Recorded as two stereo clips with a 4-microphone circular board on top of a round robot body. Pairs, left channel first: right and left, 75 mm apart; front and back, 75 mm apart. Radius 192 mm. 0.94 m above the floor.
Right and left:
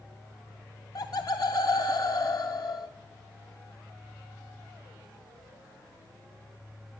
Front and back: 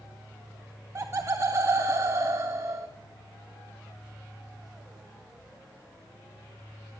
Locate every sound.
0.9 s laughter: 125° right, 0.5 m